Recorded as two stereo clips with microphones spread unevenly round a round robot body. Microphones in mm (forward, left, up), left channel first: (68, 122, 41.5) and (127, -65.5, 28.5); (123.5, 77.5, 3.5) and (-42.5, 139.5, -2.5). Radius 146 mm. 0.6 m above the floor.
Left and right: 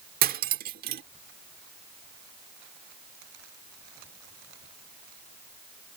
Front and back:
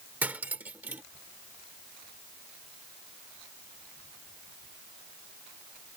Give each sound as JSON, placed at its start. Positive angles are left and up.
{"t": 0.2, "sound": "cutlery clinking", "azimuth_deg": -120}